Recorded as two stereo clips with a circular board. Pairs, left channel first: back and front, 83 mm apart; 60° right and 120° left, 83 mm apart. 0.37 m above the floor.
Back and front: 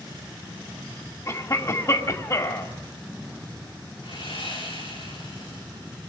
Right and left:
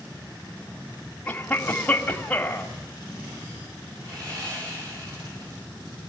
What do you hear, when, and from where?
1.3 s a cough: 135° right, 2 m
4.0 s sawing: 165° left, 8 m